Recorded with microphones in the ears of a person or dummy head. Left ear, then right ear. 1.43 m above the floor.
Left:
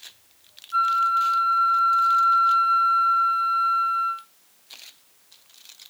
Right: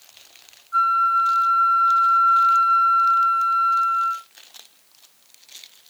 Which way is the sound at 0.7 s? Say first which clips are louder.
Right 3 dB; 25° left (ahead or behind).